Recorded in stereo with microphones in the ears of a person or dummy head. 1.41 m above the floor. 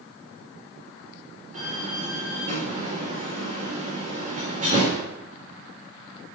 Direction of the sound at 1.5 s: 35° right (ahead or behind).